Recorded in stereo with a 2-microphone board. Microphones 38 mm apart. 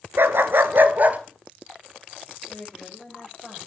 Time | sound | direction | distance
0.2 | a dog barking | 75° right (ahead or behind) | 1.3 m
2.5 | a woman speaking | 5° left (ahead or behind) | 8.5 m